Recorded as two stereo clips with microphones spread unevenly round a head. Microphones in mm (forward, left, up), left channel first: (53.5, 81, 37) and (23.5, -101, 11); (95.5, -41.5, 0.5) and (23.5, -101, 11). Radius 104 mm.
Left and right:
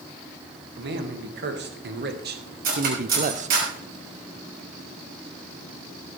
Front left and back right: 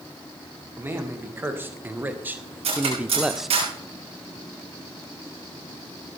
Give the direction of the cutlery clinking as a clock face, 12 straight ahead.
5 o'clock.